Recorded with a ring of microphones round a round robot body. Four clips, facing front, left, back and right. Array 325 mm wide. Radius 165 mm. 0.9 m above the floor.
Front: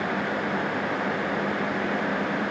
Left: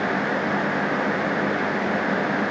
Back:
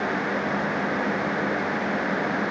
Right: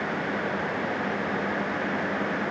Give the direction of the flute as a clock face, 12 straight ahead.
No flute in this recording.